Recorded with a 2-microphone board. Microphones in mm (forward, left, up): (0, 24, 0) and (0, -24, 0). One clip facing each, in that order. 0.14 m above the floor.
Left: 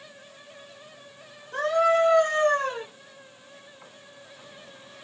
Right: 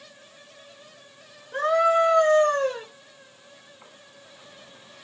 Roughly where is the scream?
Centre.